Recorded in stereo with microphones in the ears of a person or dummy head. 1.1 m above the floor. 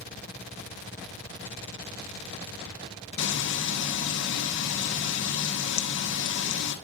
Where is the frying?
60° left (ahead or behind), 0.9 m.